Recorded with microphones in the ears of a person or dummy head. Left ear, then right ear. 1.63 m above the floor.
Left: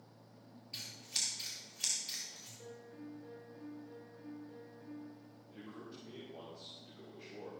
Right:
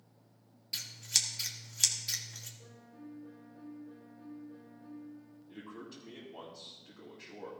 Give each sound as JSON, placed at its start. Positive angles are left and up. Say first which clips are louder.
{"t": 0.7, "sound": "scissors", "louder": "right 7 dB", "side_deg": -65, "distance_m": 1.7}
{"t": 2.6, "sound": "a piano", "louder": "left 3 dB", "side_deg": 75, "distance_m": 5.0}
{"t": 5.5, "sound": "a man speaking", "louder": "right 3 dB", "side_deg": -75, "distance_m": 2.5}